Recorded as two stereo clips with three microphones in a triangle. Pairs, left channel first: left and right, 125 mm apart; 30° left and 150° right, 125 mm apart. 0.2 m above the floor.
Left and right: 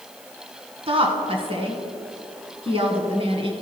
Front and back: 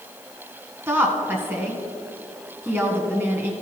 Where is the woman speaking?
80° right, 1.6 m.